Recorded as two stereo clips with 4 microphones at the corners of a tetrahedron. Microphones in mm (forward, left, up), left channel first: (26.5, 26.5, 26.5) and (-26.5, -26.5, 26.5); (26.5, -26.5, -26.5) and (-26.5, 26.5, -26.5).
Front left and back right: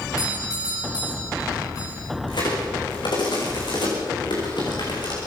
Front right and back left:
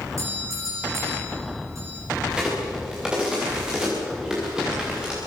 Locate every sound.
0.2 s a doorbell: 85° left, 8 m
2.3 s a crack: 55° left, 7.5 m